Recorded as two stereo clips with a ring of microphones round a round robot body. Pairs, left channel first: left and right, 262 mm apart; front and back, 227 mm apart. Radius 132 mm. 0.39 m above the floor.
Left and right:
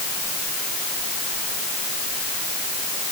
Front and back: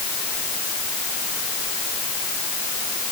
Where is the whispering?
I don't hear whispering.